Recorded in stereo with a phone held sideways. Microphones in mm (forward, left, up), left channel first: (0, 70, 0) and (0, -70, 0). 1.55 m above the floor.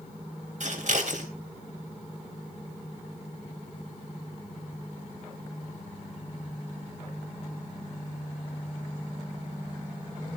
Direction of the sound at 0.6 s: 60° right (ahead or behind).